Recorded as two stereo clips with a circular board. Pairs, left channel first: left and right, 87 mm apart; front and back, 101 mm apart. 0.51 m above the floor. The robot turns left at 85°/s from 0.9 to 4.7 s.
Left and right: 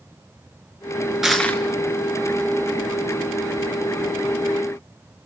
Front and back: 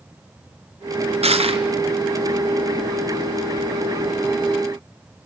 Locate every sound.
1.2 s crushing: 175° right, 1.8 m; by 1.6 s 150° left, 1.8 m